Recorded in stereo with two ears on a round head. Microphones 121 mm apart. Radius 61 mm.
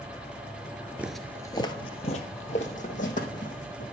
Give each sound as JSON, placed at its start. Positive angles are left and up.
{"t": 1.0, "sound": "footsteps", "side_deg": -15, "distance_m": 0.8}